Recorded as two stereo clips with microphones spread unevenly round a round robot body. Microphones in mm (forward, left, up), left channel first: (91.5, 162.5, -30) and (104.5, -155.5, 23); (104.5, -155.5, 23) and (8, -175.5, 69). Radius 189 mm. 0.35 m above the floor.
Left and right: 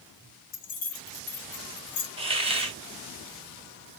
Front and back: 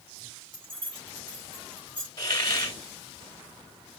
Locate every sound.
0.5 s keys jangling: 110° left, 2.5 m
2.2 s a hiss: 10° right, 2.0 m